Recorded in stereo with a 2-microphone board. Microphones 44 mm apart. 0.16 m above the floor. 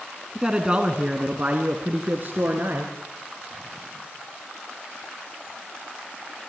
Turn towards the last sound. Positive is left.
turn(degrees=-50)  # may be behind; listen again after turning